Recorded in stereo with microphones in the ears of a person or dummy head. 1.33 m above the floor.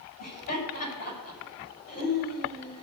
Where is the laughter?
45° left (ahead or behind), 9 m.